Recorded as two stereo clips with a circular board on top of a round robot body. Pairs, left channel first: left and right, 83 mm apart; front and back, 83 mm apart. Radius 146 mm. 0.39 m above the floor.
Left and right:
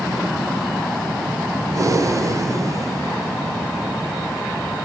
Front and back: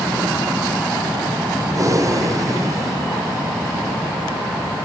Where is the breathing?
135° right, 0.8 m.